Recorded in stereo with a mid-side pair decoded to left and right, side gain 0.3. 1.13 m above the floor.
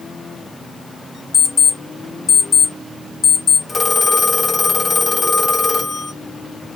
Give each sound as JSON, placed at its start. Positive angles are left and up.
{"t": 1.3, "sound": "an alarm clock", "azimuth_deg": 50, "distance_m": 1.1}
{"t": 3.7, "sound": "a phone ringing", "azimuth_deg": 45, "distance_m": 1.1}